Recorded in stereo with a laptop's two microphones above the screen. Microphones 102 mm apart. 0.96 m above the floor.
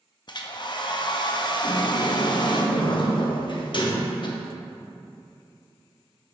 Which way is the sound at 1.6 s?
50° left (ahead or behind).